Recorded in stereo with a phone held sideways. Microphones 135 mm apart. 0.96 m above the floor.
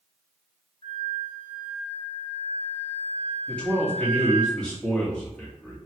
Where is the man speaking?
5° left (ahead or behind), 1.2 m.